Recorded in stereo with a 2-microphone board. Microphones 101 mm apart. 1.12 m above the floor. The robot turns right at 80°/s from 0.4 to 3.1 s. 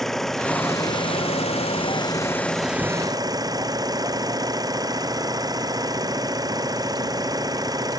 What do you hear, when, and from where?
0.0 s an engine running: 5° left; by 8.0 s 140° right